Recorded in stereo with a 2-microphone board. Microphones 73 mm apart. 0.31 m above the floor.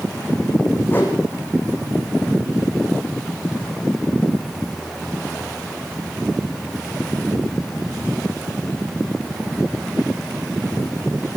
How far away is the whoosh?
About 4.5 m.